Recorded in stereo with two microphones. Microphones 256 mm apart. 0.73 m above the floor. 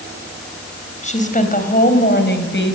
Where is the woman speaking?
30° left (ahead or behind), 4 m; by 2.8 s 50° left (ahead or behind), 4.5 m.